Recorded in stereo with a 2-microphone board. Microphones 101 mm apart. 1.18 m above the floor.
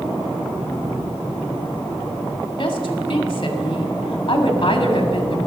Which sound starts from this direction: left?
A woman speaking, at 2.6 s.